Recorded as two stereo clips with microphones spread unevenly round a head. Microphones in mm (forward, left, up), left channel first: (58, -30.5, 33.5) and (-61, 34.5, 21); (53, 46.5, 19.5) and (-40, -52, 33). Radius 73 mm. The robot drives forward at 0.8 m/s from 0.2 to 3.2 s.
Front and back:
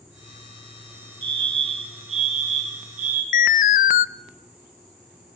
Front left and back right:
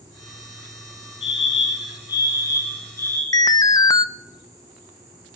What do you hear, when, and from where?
1.2 s a fire alarm: 95° left, 3 m; by 3.2 s 120° left, 3.5 m
3.3 s an alarm: 10° right, 0.7 m